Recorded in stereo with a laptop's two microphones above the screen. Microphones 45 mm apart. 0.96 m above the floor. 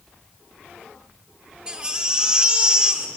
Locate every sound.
1.7 s a baby crying: 20° right (ahead or behind), 1.2 m